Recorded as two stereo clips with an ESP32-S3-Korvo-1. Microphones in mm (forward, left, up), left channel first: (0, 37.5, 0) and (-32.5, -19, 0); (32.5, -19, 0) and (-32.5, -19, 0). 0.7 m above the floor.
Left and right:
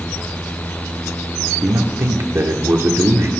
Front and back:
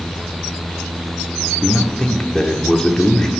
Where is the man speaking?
80° right, 1.5 m.